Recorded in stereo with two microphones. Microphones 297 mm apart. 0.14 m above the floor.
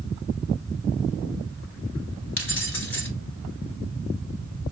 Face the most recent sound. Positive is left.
turn(degrees=45)  # may be behind; listen again after turning